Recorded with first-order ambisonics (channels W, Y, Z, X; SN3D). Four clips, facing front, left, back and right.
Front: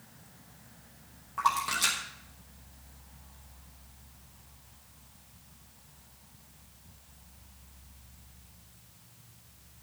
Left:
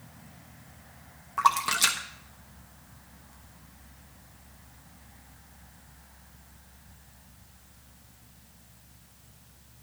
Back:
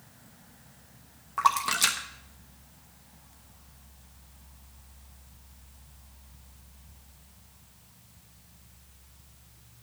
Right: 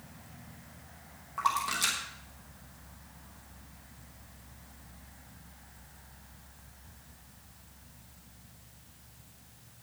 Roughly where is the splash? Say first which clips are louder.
Left 6 dB, back 3 dB; behind left.